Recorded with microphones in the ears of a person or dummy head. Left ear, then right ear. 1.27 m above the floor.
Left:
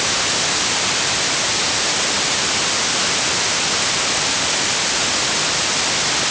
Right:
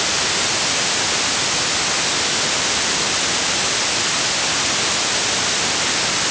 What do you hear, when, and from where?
Only background noise.